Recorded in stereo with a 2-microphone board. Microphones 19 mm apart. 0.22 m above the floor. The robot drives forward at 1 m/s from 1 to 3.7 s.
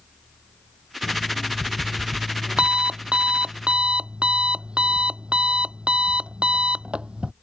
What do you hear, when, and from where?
1.0 s an alarm clock: 55° right (ahead or behind); by 7.3 s 80° right